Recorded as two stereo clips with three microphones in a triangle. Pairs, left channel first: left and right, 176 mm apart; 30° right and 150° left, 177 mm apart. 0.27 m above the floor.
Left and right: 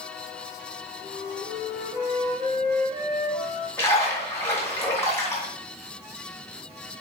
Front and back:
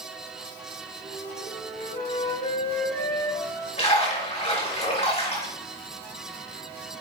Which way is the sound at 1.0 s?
20° right.